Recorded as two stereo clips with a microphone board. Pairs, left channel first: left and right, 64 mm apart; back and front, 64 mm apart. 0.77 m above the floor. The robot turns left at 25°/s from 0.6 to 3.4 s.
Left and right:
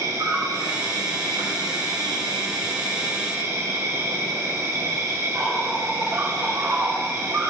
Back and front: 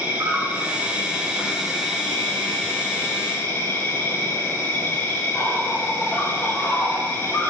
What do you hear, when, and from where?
0.0 s an insect: 60° right, 3 m; by 7.5 s 130° right, 3 m